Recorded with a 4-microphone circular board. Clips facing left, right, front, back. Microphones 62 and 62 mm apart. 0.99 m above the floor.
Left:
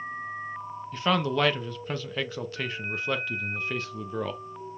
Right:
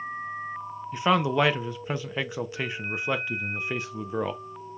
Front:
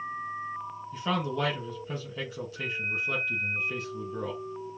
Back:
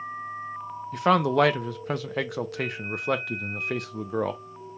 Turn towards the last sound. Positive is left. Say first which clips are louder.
# right 3 dB, back 10 dB
turn(degrees=-165)